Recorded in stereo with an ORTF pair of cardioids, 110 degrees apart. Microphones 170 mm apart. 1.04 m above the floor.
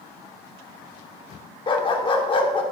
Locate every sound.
1.7 s a dog barking: 30° left, 1.3 m